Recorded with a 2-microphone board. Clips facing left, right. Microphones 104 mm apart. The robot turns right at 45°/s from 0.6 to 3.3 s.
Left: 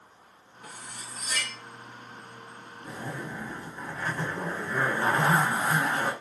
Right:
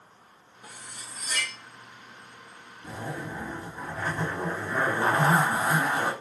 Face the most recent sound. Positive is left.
turn(degrees=-15)  # may be behind; listen again after turning